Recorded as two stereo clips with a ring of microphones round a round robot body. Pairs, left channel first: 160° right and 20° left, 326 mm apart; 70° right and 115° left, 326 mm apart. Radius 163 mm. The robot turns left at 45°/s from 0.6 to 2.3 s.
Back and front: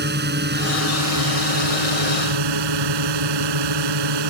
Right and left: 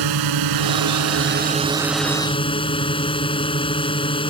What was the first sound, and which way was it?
A drone, 85° left.